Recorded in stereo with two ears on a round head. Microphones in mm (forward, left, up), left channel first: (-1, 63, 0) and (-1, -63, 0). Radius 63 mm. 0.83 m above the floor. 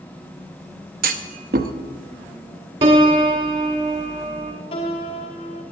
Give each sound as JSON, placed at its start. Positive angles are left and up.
{"t": 1.0, "sound": "a clunk", "side_deg": -70, "distance_m": 0.7}
{"t": 2.8, "sound": "a piano", "side_deg": -40, "distance_m": 1.5}
{"t": 4.7, "sound": "a piano", "side_deg": 40, "distance_m": 1.7}